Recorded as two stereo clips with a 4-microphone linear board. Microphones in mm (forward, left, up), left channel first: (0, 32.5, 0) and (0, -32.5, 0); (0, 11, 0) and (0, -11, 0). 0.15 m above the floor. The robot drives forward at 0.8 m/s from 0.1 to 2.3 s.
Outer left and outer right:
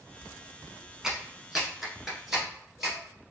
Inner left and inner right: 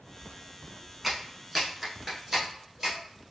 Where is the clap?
10° right (ahead or behind), 0.9 m; by 3.0 s 5° right (ahead or behind), 1.6 m.